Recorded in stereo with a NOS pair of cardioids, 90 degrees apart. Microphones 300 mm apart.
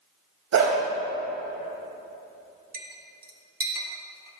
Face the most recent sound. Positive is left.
turn(degrees=-30)